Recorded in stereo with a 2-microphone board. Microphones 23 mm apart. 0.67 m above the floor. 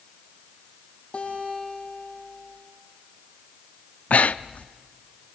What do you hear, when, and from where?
1.1 s a guitar: 45° left (ahead or behind), 7 m
4.1 s breathing: 60° left (ahead or behind), 0.5 m